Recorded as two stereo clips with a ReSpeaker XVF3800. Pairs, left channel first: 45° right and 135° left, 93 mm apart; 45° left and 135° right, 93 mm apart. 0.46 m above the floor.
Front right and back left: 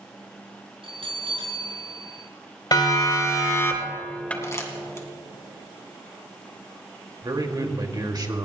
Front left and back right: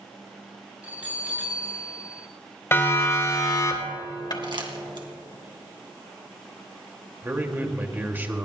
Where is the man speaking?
160° left, 2.0 m.